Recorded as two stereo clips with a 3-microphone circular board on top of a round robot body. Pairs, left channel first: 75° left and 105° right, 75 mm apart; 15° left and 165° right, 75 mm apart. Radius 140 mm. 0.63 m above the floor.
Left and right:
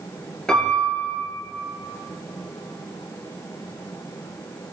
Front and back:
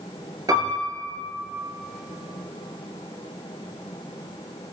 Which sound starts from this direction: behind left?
A piano, at 0.5 s.